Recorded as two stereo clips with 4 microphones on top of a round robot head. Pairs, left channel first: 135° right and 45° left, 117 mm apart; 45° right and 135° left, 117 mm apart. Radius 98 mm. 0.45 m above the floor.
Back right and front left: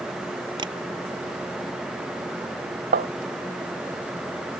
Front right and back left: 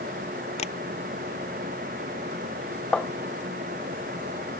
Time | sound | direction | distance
0.6 | tapping | 10° right | ?
2.9 | tapping | 40° left | ?